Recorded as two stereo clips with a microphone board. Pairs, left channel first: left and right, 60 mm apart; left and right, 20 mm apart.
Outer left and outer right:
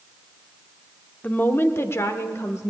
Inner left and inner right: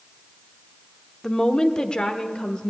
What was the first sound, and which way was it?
A woman speaking, 25° left (ahead or behind).